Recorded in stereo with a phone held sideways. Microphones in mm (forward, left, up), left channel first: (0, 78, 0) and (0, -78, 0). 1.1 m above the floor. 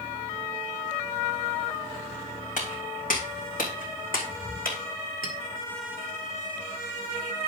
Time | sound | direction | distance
2.6 | footsteps | 65° left (ahead or behind) | 4 m
5.2 | a clink | 80° left | 2.5 m